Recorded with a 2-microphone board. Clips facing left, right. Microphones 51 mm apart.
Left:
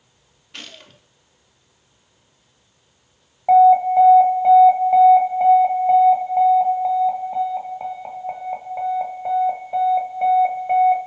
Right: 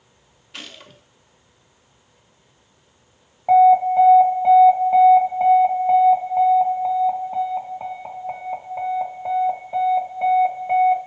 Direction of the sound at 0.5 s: Centre (ahead or behind).